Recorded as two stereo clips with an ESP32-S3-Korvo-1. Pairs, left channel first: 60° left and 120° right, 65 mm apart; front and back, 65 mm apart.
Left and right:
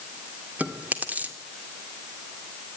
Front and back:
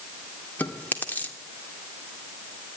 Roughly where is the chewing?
Ahead right.